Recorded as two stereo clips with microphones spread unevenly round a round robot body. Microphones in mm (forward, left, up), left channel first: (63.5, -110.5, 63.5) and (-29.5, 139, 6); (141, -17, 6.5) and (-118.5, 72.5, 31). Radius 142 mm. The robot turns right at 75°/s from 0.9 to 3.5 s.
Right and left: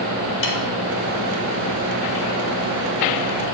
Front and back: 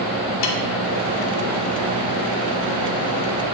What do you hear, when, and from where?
0.4 s a snare drum: 25° right, 1.5 m